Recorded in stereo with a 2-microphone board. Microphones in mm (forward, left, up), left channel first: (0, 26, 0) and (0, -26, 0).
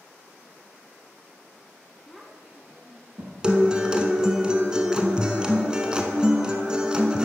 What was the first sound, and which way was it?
A child speaking, 10° left (ahead or behind).